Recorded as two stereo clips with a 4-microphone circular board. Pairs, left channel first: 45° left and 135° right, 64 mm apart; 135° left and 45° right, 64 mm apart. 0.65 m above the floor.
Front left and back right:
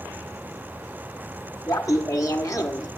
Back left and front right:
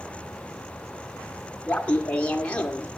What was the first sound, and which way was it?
Laughter, 65° left.